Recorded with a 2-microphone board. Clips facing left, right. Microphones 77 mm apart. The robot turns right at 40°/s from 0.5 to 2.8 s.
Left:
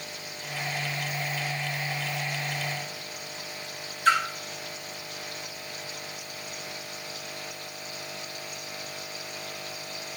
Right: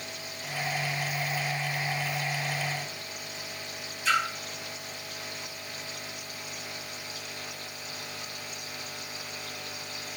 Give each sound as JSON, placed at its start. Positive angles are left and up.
{"t": 4.0, "sound": "a splash", "side_deg": 55, "distance_m": 2.5}